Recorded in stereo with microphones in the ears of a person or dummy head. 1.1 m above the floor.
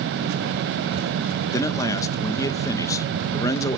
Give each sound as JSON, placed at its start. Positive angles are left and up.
{"t": 1.5, "sound": "a man speaking", "side_deg": 20, "distance_m": 1.0}